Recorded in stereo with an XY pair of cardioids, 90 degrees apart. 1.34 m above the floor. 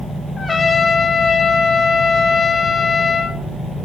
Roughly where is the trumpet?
Ahead left.